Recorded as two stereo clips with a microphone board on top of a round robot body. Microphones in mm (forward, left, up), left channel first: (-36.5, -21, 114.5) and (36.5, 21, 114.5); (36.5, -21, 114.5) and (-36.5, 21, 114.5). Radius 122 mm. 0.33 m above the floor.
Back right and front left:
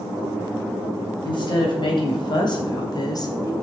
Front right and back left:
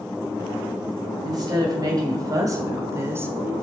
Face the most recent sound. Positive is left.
turn(degrees=-150)